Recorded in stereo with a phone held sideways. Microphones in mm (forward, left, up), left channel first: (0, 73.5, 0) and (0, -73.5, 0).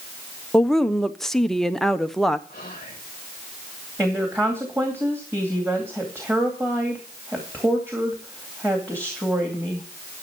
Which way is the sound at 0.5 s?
5° left (ahead or behind).